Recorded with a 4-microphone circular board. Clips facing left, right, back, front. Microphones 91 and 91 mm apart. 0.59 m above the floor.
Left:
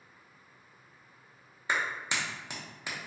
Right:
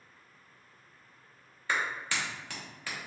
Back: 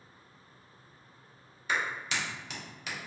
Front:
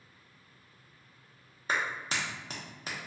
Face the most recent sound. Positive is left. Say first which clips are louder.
# even, even
turn(degrees=30)